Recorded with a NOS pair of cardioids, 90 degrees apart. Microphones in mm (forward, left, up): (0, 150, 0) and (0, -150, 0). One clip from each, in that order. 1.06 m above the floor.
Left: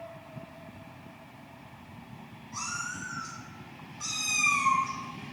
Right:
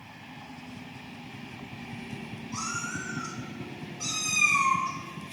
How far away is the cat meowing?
About 1.8 m.